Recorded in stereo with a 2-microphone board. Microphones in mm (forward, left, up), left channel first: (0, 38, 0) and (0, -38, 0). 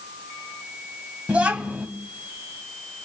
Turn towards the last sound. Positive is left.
turn(degrees=-20)  # may be behind; listen again after turning